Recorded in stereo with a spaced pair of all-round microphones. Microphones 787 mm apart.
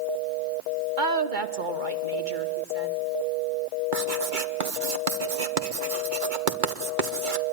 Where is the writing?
80° right, 1.5 m.